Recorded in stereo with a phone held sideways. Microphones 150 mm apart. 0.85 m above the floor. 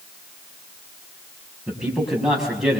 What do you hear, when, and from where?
1.7 s a man speaking: 5° right (ahead or behind), 6 m